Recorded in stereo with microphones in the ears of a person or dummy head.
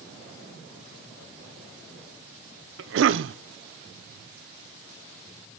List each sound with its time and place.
2.8 s a cough: 65° right (ahead or behind), 0.9 m